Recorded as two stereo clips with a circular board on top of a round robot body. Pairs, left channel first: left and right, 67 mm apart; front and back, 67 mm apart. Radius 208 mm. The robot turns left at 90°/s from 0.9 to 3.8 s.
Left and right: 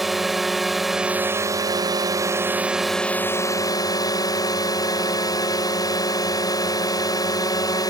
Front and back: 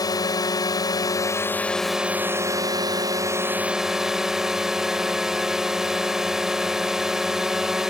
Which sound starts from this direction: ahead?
A drone, at 0.0 s.